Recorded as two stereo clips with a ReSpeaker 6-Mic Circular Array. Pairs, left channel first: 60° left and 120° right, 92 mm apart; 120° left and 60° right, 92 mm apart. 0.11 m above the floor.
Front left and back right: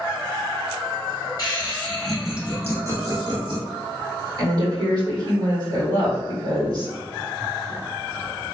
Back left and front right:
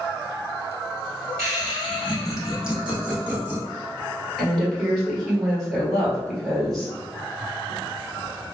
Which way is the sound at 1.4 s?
55° left.